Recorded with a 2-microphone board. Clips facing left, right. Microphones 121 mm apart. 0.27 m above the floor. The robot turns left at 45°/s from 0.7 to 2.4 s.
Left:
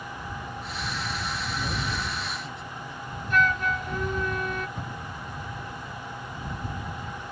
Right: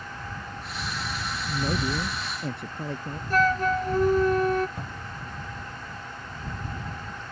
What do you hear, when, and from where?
1.5 s a man speaking: 30° right; by 3.2 s 75° right
3.3 s a flute: 40° right (ahead or behind)
4.8 s a cupboard door: 5° right (ahead or behind)